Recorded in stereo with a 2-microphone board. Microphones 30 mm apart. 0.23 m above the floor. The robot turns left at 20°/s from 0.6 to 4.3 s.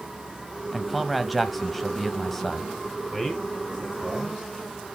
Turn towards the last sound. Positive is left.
turn(degrees=-25)  # may be behind; listen again after turning